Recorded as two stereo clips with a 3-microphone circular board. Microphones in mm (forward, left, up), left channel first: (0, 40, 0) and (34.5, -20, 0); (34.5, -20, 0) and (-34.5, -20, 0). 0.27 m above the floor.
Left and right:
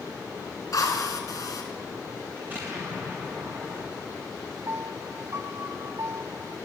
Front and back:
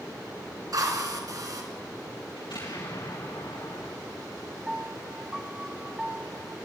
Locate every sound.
0.7 s a drill: 155° left, 3.5 m
2.4 s an explosion: 5° left, 10 m
4.7 s a piano: 105° right, 0.9 m